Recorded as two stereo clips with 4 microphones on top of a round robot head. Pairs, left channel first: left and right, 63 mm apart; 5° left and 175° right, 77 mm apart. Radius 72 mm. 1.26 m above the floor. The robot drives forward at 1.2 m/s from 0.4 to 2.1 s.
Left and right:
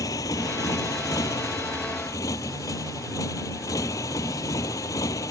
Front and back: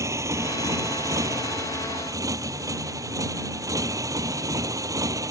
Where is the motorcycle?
130° left; by 5.3 s 135° left.